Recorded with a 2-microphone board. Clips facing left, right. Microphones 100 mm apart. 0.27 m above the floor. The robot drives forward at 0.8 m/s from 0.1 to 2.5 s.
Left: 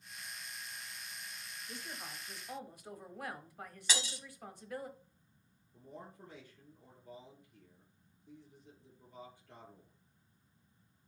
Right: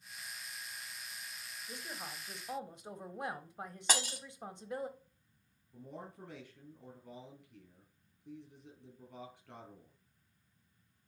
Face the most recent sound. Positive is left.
turn(degrees=-75)  # may be behind; listen again after turning